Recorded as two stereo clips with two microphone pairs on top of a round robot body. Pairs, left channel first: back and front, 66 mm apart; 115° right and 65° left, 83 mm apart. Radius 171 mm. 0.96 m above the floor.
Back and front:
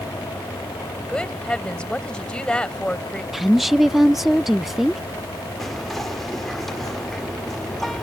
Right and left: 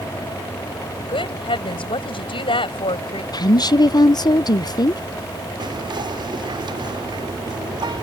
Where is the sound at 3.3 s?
95° right.